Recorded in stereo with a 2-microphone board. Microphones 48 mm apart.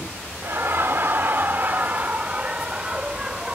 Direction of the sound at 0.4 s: 50° right (ahead or behind).